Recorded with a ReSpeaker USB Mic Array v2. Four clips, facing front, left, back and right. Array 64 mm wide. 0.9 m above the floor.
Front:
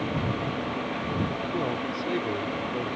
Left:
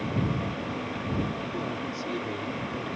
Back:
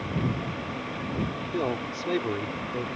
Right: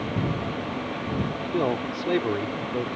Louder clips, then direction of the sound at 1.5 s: Right 7 dB, back 3 dB; 105° right.